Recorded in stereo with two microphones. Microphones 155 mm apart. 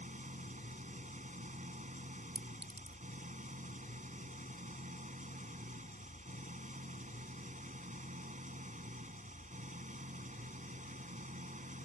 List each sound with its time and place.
0.0 s an engine running: 55° right (ahead or behind)
2.4 s a clink: 40° right (ahead or behind)